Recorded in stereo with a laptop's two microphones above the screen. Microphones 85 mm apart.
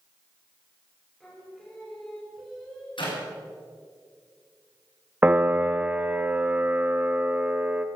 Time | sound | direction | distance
1.2 | singing | 5° left (ahead or behind) | 3.5 m
3.0 | a clap | 80° left | 4.5 m
5.2 | a piano | 20° right (ahead or behind) | 0.8 m